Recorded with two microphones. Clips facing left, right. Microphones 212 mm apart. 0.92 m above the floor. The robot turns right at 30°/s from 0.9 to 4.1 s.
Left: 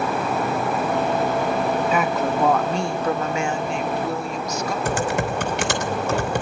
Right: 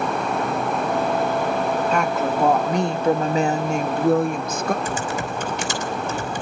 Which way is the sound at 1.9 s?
175° left.